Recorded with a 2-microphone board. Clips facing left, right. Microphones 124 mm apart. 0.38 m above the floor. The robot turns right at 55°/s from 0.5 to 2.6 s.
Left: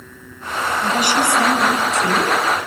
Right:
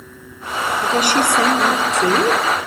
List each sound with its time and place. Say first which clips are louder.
0.8 s a woman speaking: right 2 dB; 145° right, 5 m; by 2.4 s 60° right, 5 m